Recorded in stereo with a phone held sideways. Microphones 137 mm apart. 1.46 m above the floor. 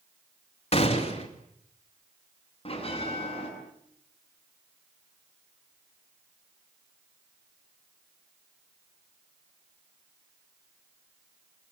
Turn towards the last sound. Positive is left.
turn(degrees=45)  # may be behind; listen again after turning